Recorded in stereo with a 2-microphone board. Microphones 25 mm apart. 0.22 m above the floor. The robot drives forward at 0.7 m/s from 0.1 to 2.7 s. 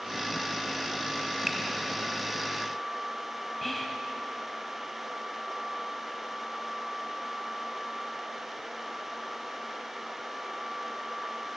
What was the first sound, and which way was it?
A finger snap, 5° left (ahead or behind).